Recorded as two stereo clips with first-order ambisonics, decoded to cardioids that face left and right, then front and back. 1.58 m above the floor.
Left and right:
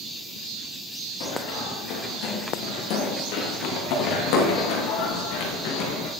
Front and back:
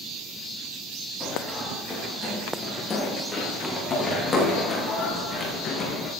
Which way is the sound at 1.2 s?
75° left.